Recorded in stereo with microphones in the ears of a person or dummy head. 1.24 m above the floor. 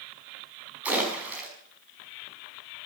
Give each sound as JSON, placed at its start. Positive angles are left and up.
{"t": 0.8, "sound": "a splash", "side_deg": -5, "distance_m": 5.0}